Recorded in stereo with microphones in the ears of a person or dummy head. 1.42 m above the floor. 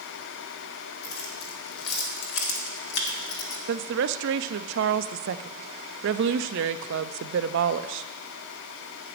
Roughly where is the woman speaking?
Right.